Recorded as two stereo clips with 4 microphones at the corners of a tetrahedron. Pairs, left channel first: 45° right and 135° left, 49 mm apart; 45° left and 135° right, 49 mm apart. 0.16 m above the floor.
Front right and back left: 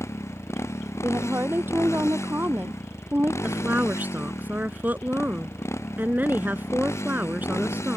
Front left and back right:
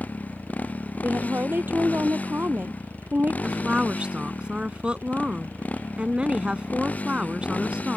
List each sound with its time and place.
0.0 s a motorcycle: 15° right
1.0 s a woman speaking: straight behind
3.4 s a woman speaking: 165° left